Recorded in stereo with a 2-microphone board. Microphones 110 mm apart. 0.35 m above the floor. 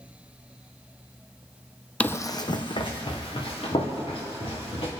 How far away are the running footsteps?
About 0.6 m.